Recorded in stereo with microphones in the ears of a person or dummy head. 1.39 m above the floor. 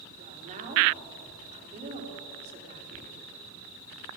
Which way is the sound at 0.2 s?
45° right (ahead or behind).